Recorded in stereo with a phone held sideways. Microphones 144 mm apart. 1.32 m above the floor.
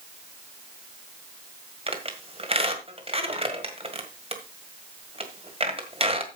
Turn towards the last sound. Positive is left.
turn(degrees=-40)  # may be behind; listen again after turning